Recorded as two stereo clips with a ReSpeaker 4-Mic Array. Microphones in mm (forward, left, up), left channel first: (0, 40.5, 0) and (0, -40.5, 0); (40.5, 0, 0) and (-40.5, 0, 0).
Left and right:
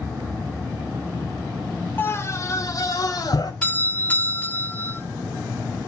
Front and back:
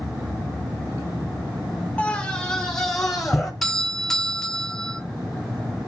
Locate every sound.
2.0 s a scream: 55° left, 1.0 m; by 3.5 s 90° left, 1.6 m
3.6 s a doorbell: 75° left, 1.8 m